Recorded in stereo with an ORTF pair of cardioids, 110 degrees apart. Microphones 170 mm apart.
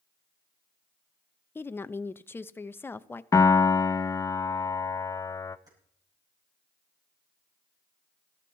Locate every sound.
1.6 s a woman speaking: 15° left, 0.5 m
3.3 s a piano: 20° left, 0.6 m
5.7 s keys jangling: 25° right, 5.5 m